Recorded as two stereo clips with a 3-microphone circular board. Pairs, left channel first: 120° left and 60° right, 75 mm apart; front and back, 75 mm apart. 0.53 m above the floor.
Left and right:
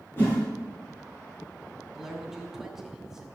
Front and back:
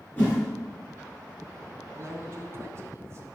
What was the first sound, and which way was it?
A whoosh, 60° left.